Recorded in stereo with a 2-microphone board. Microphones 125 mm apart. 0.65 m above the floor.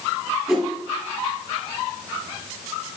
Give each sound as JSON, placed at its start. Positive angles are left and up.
{"t": 0.5, "sound": "a whoosh", "side_deg": -5, "distance_m": 4.5}